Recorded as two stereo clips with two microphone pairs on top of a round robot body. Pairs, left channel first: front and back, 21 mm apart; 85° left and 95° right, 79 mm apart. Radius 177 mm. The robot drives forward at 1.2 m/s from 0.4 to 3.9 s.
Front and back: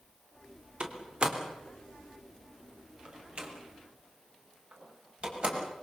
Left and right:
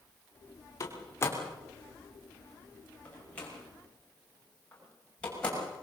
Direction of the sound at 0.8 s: 135° left.